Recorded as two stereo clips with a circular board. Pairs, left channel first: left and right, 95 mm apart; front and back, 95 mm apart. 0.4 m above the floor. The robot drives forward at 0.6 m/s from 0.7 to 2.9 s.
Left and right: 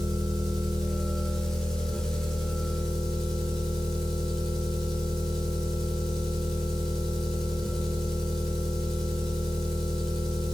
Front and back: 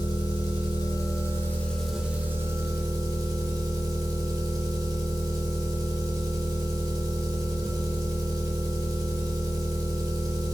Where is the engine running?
5° left, 0.9 m; by 10.5 s 175° left, 0.9 m.